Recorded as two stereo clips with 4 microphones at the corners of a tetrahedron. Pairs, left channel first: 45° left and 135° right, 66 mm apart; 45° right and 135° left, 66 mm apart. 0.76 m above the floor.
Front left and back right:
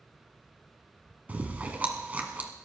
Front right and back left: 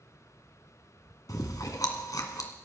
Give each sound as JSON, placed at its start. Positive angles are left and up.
{"t": 1.3, "sound": "chewing", "azimuth_deg": -70, "distance_m": 1.8}